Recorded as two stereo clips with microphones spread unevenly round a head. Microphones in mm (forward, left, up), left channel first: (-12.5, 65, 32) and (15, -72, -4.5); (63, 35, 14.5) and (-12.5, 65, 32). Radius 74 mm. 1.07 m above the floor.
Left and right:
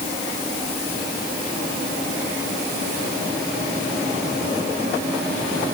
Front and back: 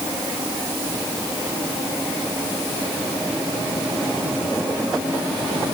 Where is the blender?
No blender in this recording.